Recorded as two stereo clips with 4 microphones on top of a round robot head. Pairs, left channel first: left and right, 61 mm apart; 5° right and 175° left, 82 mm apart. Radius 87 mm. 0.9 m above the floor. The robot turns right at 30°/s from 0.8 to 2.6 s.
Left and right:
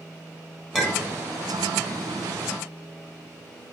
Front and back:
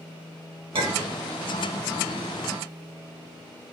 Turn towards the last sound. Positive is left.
turn(degrees=-130)